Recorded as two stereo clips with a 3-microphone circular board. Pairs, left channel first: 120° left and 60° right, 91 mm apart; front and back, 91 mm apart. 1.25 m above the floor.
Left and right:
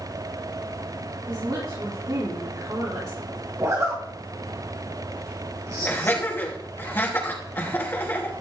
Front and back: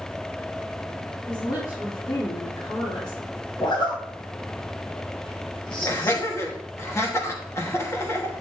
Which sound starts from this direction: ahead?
A zipper, at 3.6 s.